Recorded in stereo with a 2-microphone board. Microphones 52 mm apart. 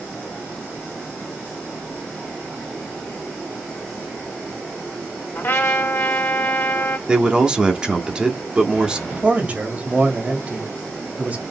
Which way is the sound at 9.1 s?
30° right (ahead or behind).